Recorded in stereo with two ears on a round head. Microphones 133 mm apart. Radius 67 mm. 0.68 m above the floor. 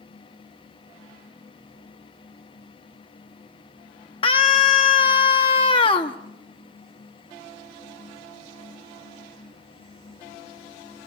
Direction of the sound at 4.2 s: 35° left (ahead or behind).